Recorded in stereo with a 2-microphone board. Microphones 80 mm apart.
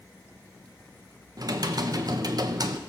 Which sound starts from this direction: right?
Typing on a keyboard, at 1.4 s.